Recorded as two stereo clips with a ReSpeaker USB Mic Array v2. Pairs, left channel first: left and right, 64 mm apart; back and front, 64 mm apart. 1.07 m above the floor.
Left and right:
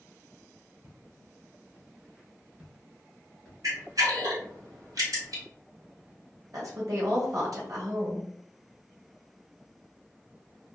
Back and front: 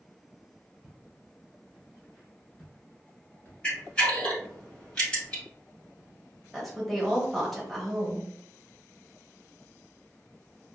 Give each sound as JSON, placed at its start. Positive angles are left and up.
{"t": 0.8, "sound": "footsteps", "azimuth_deg": -75, "distance_m": 1.3}
{"t": 3.6, "sound": "a camera shutter", "azimuth_deg": -110, "distance_m": 1.3}
{"t": 6.5, "sound": "a woman speaking", "azimuth_deg": -90, "distance_m": 1.1}